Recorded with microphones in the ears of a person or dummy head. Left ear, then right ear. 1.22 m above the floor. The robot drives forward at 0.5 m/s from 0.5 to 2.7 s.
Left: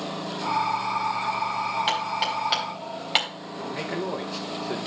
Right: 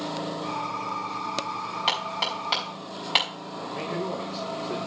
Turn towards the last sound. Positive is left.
turn(degrees=65)  # may be behind; listen again after turning